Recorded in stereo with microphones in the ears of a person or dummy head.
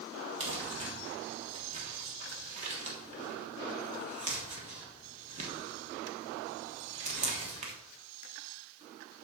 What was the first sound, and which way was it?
Crumpling, 40° right (ahead or behind).